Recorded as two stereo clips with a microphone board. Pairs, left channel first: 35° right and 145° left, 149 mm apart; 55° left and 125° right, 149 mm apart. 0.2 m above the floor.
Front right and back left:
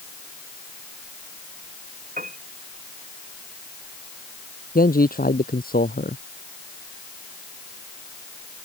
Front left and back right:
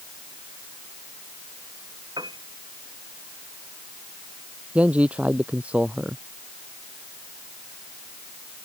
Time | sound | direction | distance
2.2 | a piano | 175° left | ?
4.8 | a man speaking | 45° right | ?